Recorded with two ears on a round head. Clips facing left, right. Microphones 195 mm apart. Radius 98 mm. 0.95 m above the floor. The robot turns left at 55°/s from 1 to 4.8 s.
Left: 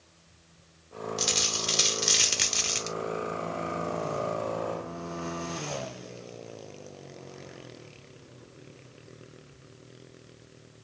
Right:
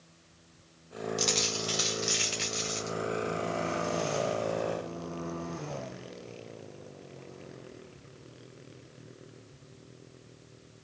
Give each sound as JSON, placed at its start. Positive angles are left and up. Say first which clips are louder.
{"t": 1.2, "sound": "a dropped coin", "louder": "right 2 dB", "azimuth_deg": 180, "distance_m": 1.0}